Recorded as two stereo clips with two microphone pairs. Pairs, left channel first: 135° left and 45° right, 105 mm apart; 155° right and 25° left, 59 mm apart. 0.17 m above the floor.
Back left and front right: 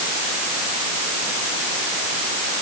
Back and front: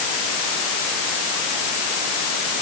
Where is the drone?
I don't hear a drone.